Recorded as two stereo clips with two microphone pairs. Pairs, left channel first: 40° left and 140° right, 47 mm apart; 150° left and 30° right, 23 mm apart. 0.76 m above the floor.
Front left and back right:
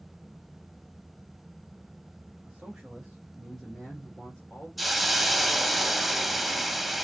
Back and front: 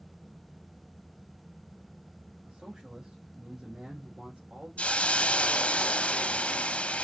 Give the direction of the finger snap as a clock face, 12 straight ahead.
No finger snap in this recording.